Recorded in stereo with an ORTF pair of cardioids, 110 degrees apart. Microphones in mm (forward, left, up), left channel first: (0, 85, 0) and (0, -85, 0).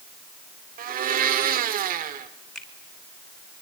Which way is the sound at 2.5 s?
5° left.